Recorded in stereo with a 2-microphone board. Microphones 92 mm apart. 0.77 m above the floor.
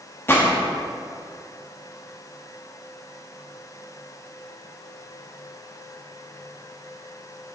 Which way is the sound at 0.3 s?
25° left (ahead or behind).